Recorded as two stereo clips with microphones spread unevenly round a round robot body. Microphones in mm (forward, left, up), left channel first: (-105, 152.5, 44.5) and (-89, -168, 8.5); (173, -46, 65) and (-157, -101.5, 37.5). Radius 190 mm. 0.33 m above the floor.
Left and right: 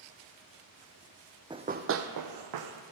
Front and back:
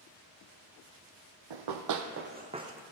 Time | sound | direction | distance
1.5 | running footsteps | 165° right | 1.0 m